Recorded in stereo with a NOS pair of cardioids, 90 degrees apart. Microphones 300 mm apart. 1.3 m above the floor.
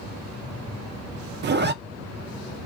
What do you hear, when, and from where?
1.4 s a zipper: 35° right, 0.6 m